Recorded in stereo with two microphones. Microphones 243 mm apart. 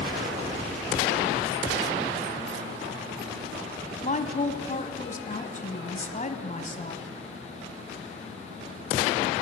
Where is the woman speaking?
30° left (ahead or behind), 1.6 m.